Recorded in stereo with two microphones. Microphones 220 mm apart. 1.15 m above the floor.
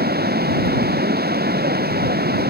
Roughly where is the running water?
Right.